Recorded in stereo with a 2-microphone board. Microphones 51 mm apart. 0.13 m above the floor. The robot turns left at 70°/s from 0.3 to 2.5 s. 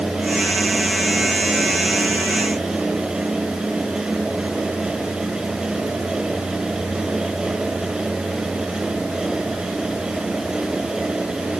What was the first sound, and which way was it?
Only background noise.